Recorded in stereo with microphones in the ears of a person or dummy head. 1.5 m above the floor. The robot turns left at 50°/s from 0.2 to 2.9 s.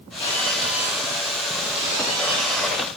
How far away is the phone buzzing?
About 6 m.